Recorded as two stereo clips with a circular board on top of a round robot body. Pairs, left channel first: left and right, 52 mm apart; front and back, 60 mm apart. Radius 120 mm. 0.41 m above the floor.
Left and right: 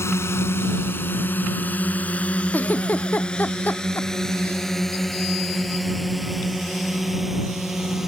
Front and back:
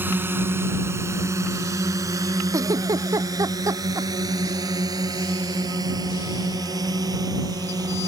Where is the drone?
120° left; by 8.1 s 175° right.